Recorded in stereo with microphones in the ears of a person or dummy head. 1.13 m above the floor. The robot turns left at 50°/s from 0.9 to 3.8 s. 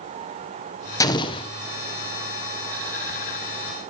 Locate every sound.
1.0 s an explosion: 20° left (ahead or behind), 0.8 m; by 1.5 s 30° left (ahead or behind), 0.8 m